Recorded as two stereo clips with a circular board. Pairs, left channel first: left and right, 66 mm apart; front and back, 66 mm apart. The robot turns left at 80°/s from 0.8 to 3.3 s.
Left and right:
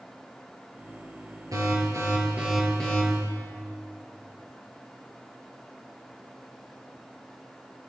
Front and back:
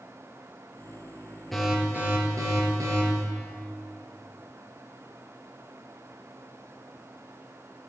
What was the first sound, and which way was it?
An alarm, 85° right.